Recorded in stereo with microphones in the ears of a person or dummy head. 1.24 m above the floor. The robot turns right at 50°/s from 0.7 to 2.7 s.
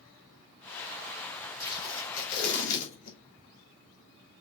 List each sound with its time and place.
1.6 s tape being pulled: 15° left, 4 m; by 3.2 s 70° left, 4 m